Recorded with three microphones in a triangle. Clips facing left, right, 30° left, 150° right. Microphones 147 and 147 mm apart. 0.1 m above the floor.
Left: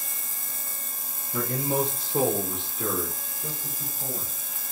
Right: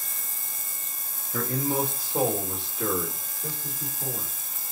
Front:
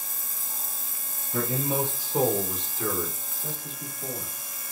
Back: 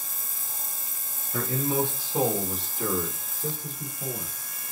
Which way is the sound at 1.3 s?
50° left.